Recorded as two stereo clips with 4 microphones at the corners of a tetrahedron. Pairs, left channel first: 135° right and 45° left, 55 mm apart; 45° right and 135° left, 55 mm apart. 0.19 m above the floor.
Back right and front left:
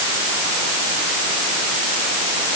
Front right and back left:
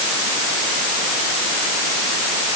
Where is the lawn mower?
No lawn mower in this recording.